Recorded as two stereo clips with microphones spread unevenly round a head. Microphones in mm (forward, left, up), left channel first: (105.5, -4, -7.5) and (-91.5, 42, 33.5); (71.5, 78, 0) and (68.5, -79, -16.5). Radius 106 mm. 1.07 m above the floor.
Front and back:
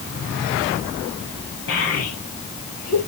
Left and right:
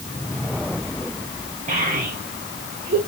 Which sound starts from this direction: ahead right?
A child speaking, at 1.7 s.